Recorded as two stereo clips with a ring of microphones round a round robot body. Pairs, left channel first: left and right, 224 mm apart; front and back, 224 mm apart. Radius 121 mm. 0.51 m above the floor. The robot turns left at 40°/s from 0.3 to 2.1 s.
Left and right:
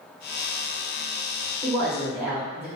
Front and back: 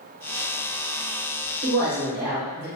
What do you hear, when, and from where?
1.6 s a woman speaking: 150° right, 1.0 m; by 2.7 s 170° right, 1.0 m